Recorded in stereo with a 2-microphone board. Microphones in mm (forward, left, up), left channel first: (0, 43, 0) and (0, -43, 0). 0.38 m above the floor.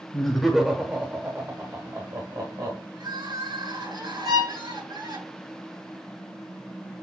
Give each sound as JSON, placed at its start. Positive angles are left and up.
{"t": 0.1, "sound": "laughter", "side_deg": 10, "distance_m": 0.9}
{"t": 3.0, "sound": "crying", "side_deg": -55, "distance_m": 3.5}
{"t": 4.2, "sound": "a violin", "side_deg": -50, "distance_m": 3.0}